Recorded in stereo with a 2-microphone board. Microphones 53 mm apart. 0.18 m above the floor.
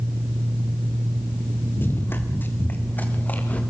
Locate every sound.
1.8 s running footsteps: 40° left (ahead or behind), 3 m; by 3.6 s 30° left (ahead or behind), 3.5 m